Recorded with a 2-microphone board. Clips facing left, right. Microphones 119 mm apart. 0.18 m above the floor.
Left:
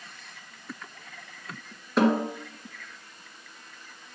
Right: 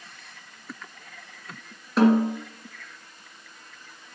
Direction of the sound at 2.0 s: Centre (ahead or behind).